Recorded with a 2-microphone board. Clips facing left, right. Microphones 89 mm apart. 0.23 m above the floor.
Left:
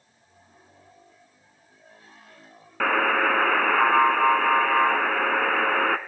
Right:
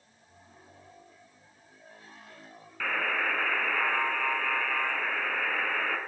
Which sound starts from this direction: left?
A buzzer, at 2.8 s.